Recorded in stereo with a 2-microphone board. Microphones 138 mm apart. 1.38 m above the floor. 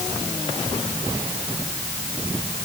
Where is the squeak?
No squeak in this recording.